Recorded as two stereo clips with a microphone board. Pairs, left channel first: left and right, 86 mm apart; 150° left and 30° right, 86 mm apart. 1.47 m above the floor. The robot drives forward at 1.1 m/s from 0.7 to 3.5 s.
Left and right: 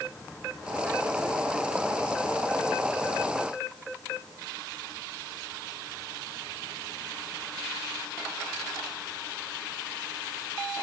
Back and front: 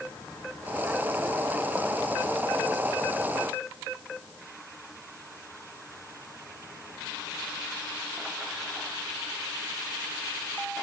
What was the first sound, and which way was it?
Only background noise.